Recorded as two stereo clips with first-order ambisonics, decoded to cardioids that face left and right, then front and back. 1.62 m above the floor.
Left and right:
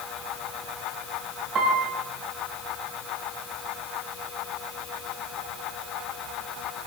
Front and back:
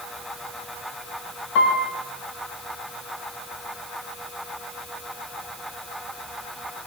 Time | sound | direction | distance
1.6 | a piano | 30° right | 3 m